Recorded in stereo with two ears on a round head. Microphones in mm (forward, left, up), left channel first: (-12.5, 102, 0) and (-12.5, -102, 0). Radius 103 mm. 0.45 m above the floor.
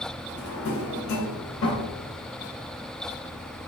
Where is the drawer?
60° left (ahead or behind), 1.0 m.